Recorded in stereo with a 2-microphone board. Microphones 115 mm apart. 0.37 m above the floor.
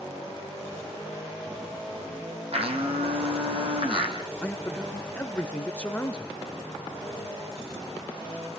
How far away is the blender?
About 3.5 m.